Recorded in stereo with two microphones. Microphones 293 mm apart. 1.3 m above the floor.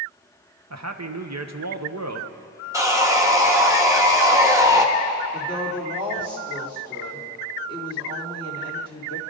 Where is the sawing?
10° right (ahead or behind), 1.1 m.